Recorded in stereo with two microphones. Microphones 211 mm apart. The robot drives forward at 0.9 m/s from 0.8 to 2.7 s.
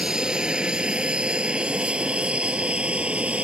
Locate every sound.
0.0 s an aircraft: 5° right (ahead or behind)